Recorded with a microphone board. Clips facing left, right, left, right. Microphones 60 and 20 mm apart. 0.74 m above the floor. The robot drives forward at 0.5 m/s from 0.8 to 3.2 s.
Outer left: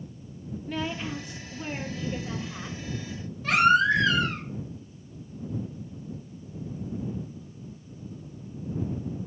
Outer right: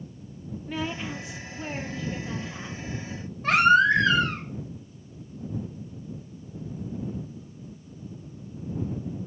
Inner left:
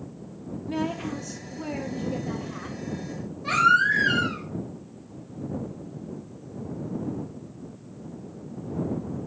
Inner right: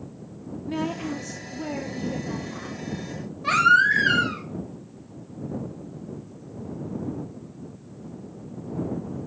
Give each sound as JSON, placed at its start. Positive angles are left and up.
{"t": 0.7, "sound": "a woman speaking", "side_deg": -10, "distance_m": 0.6}
{"t": 3.4, "sound": "a baby crying", "side_deg": -40, "distance_m": 1.0}